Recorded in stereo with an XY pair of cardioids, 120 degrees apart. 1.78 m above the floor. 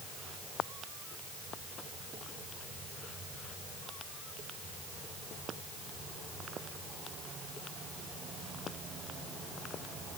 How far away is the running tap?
I don't hear a running tap.